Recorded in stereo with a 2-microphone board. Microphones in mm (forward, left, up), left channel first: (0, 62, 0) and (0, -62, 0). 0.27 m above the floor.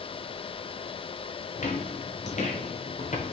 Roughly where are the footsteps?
Left.